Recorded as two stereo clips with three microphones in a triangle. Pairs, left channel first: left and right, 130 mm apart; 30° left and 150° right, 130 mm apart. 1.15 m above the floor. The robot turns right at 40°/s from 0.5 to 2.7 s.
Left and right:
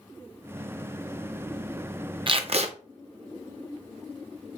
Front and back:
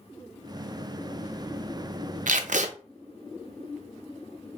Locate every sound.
2.3 s tape being pulled: 140° right, 0.6 m; by 2.7 s 125° right, 0.6 m